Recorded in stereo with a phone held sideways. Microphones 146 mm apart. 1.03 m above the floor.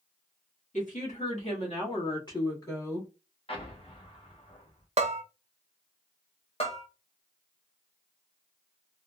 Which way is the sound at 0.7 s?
60° left (ahead or behind).